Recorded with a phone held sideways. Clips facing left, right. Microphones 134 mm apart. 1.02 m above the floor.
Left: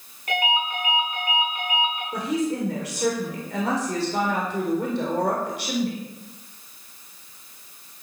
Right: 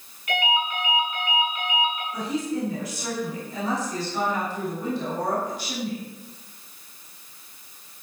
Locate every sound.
0.3 s a ringtone: 40° left (ahead or behind), 8 m
2.1 s a woman speaking: 75° left (ahead or behind), 4 m